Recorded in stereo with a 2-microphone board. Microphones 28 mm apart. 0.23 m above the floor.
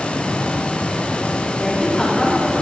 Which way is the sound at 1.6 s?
20° left (ahead or behind).